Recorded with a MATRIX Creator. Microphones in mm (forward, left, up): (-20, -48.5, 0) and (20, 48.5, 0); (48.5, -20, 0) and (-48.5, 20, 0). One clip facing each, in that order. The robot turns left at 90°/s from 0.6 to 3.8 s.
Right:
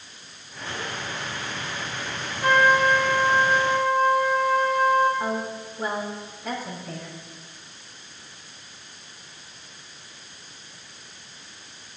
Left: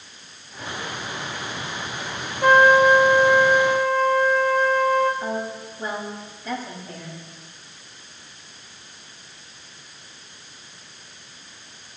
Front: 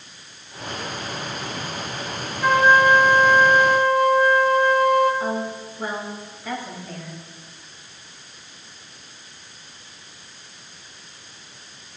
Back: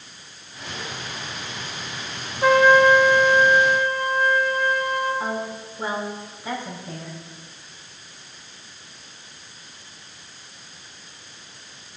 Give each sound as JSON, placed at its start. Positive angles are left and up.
{"t": 2.4, "sound": "a trumpet", "azimuth_deg": 85, "distance_m": 1.8}
{"t": 5.2, "sound": "a woman speaking", "azimuth_deg": -135, "distance_m": 5.5}